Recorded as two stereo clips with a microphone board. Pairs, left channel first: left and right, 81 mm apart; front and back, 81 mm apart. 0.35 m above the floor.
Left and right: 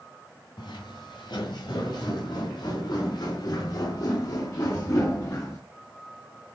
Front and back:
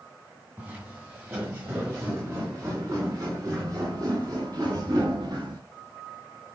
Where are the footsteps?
115° left, 4.5 m; by 5.6 s 150° left, 3.5 m.